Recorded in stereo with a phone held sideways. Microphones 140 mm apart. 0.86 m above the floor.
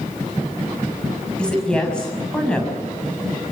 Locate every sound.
1.4 s a woman speaking: 5° left (ahead or behind), 6 m